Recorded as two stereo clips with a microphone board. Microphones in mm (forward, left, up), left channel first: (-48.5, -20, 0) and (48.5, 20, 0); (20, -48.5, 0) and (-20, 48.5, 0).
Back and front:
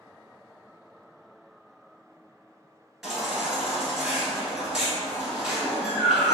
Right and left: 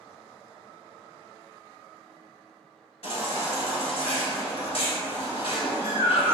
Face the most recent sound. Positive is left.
turn(degrees=-65)